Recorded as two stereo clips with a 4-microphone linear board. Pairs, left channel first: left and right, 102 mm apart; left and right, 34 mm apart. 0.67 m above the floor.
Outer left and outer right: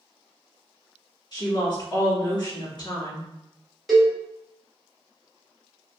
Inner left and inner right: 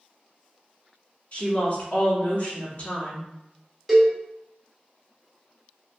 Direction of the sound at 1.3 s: 45° left (ahead or behind).